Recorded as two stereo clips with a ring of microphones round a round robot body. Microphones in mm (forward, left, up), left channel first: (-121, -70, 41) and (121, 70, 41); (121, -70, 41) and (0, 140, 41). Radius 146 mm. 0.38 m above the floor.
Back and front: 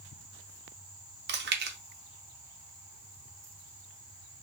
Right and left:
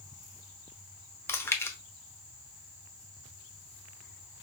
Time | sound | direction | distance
1.3 | chewing | 15° left | 0.9 m